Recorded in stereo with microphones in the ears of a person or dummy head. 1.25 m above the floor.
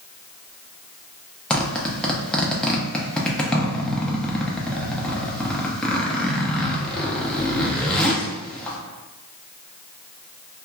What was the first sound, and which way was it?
A zipper, 5° left (ahead or behind).